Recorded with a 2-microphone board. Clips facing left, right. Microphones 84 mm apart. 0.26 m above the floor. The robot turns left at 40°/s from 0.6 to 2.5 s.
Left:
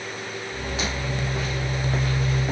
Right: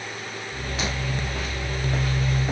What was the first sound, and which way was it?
Only background noise.